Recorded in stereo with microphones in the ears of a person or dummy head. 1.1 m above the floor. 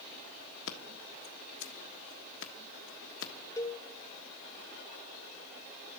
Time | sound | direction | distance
0.7 | scissors | 65° left (ahead or behind) | 1.4 m
3.6 | a cowbell | 15° left (ahead or behind) | 0.6 m